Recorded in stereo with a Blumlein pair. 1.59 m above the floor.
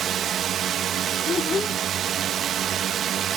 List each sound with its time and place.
0.0 s a drone: 30° right
1.3 s a child speaking: 20° left